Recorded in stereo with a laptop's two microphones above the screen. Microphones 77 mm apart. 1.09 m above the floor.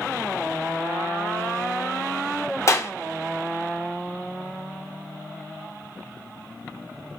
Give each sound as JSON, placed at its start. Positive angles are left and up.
{"t": 2.7, "sound": "a clap", "side_deg": 40, "distance_m": 0.8}